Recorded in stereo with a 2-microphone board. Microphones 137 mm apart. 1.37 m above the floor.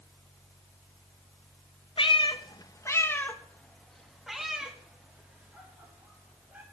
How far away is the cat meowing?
About 0.7 m.